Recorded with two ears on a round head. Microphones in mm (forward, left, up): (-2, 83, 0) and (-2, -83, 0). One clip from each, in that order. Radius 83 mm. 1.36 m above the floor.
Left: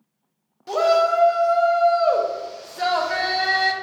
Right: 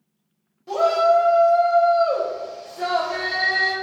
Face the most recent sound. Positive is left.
turn(degrees=45)  # may be behind; listen again after turning